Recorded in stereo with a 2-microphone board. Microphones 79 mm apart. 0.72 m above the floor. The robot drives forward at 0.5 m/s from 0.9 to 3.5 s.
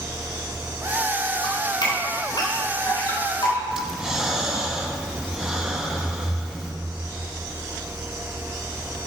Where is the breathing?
10° right (ahead or behind), 0.9 m.